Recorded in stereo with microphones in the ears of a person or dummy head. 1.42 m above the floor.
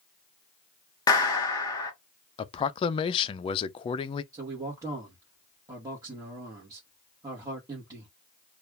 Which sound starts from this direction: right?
A man speaking, at 4.3 s.